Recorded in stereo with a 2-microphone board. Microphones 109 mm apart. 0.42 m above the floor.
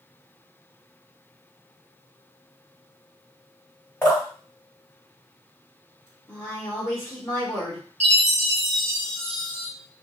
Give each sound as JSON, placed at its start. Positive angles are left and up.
{"t": 4.0, "sound": "dripping", "side_deg": 20, "distance_m": 1.9}
{"t": 6.3, "sound": "a woman speaking", "side_deg": 25, "distance_m": 1.2}
{"t": 8.0, "sound": "a chime", "side_deg": 65, "distance_m": 1.4}